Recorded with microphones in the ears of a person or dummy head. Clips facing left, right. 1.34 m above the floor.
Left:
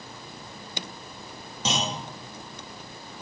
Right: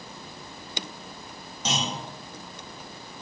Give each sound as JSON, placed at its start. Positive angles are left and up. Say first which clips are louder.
{"t": 1.6, "sound": "a clunk", "louder": "left 1 dB", "side_deg": 55, "distance_m": 0.7}